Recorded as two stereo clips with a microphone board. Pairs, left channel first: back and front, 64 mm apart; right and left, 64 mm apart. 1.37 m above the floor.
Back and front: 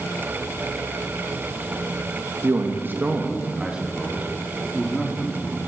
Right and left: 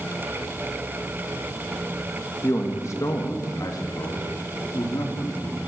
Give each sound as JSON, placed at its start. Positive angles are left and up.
{"t": 2.4, "sound": "a man speaking", "azimuth_deg": -45, "distance_m": 2.5}